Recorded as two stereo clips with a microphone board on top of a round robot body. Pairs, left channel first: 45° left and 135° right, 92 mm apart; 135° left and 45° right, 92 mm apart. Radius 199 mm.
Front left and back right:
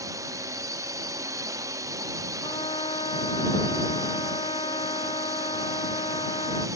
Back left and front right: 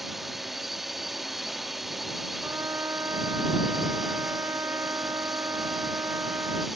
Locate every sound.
0.0 s a drone: 130° right
2.4 s a trumpet: 20° left